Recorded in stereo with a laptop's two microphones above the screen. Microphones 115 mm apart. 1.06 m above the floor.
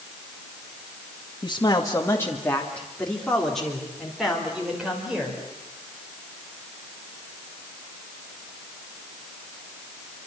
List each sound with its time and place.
1.4 s a man speaking: 40° left (ahead or behind), 1.7 m; by 5.4 s 5° right (ahead or behind), 5 m